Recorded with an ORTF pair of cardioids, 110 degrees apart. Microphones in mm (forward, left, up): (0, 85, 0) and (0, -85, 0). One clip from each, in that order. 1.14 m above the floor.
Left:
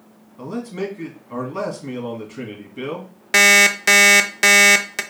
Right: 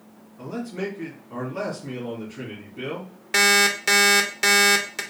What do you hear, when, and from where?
0.4 s a man speaking: 50° left, 2.5 m
3.3 s an alarm clock: 30° left, 0.5 m